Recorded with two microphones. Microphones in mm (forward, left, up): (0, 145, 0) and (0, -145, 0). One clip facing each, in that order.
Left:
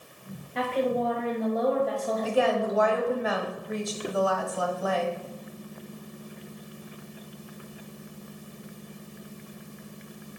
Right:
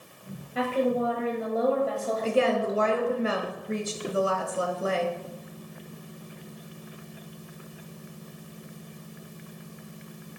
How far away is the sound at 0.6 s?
About 1.3 m.